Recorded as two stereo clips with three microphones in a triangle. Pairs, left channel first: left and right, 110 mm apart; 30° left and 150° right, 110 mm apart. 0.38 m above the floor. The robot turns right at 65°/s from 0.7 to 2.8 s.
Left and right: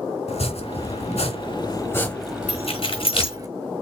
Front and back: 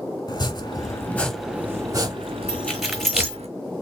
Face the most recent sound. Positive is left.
turn(degrees=120)